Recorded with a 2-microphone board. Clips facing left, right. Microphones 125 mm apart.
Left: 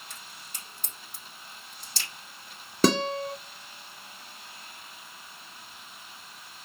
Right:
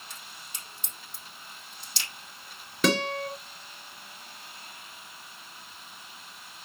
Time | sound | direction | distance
0.1 | a crack | 50° left (ahead or behind) | 5.5 m
2.8 | a guitar | 40° left (ahead or behind) | 1.8 m